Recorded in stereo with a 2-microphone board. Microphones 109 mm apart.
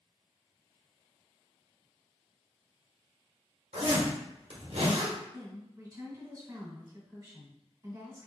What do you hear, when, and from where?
3.7 s a zipper: 80° right, 1.6 m
5.3 s a woman speaking: 35° right (ahead or behind), 2.0 m